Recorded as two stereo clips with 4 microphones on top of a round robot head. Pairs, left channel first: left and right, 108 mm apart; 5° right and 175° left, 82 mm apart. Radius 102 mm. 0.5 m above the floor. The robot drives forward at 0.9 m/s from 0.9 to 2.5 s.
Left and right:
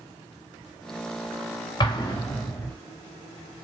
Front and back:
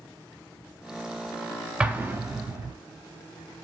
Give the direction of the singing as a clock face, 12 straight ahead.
I don't hear singing.